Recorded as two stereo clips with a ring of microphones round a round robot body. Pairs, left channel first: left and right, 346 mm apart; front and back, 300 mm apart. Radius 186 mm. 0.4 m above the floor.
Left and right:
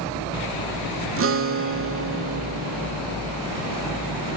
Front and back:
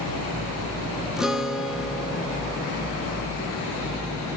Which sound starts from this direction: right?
A guitar, at 1.2 s.